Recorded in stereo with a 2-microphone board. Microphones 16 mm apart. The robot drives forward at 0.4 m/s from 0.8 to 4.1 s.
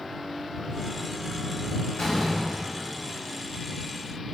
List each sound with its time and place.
2.0 s a door slam: 40° left (ahead or behind), 2.5 m; by 3.2 s 50° left (ahead or behind), 2.5 m